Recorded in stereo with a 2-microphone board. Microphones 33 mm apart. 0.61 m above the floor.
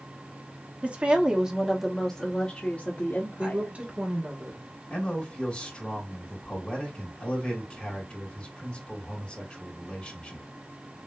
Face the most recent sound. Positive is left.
turn(degrees=25)  # may be behind; listen again after turning